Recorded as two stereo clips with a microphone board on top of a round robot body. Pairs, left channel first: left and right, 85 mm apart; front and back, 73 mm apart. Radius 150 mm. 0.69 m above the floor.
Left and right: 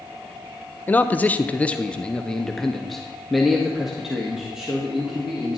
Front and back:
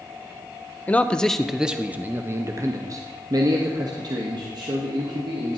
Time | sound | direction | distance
0.9 | a man speaking | 45° left | 1.1 m